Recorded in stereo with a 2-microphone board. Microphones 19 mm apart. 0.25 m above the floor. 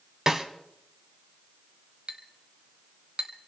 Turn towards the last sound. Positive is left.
turn(degrees=-60)  # may be behind; listen again after turning